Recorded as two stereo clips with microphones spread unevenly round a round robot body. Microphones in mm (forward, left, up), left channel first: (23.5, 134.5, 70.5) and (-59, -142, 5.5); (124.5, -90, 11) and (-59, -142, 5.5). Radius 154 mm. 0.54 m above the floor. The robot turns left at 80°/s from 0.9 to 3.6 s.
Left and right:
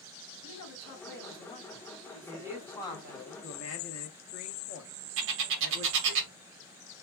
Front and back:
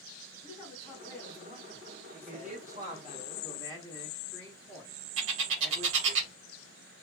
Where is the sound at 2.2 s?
150° right, 0.9 m; by 6.2 s 100° left, 0.9 m.